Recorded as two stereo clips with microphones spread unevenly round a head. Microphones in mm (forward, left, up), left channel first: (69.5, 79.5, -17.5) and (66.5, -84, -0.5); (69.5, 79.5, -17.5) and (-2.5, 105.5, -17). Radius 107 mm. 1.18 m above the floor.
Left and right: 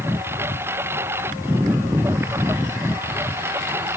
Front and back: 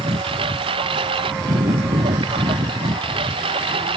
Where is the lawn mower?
170° right.